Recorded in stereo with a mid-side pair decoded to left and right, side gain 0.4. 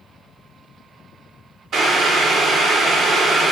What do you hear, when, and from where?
1.7 s boiling: 70° right, 0.8 m